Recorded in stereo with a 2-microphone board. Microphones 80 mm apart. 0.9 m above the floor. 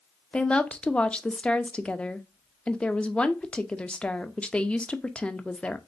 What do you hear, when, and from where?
0.3 s a woman speaking: 15° left (ahead or behind), 0.6 m